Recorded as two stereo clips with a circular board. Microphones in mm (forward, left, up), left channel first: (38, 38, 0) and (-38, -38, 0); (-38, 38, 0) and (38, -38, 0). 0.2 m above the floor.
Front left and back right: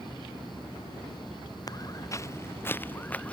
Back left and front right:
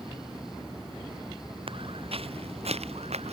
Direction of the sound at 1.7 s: 10° right.